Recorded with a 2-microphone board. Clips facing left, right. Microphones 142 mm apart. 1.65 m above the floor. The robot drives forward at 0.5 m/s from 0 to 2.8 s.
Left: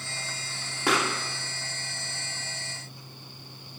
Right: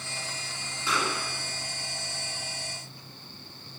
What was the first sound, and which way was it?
A pop, 70° left (ahead or behind).